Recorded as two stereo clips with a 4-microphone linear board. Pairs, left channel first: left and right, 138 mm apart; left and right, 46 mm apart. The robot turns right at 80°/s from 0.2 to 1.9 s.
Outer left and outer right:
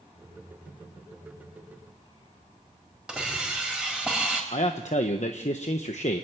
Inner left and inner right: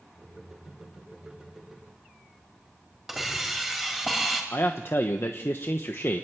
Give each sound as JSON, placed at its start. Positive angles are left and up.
{"t": 3.1, "sound": "a hiss", "side_deg": -5, "distance_m": 4.5}
{"t": 4.5, "sound": "a man speaking", "side_deg": 55, "distance_m": 1.0}